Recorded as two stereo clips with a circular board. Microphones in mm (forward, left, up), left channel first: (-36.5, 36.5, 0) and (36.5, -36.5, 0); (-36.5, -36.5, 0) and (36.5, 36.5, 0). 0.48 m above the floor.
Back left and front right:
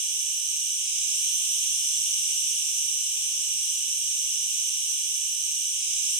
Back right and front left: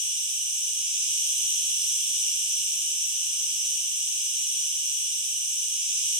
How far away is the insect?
About 1.7 m.